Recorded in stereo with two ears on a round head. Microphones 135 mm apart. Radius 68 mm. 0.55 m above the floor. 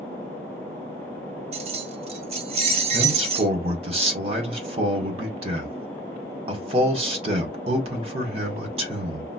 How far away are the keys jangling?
About 0.8 m.